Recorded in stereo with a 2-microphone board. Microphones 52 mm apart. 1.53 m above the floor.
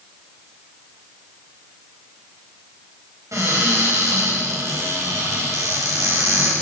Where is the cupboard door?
85° right, 9.5 m.